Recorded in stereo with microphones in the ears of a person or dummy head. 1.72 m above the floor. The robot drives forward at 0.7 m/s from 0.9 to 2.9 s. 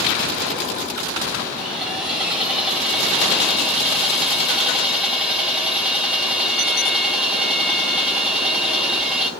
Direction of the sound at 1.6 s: Centre (ahead or behind).